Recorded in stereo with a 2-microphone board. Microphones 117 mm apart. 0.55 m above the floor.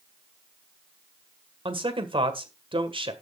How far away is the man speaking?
About 1.9 m.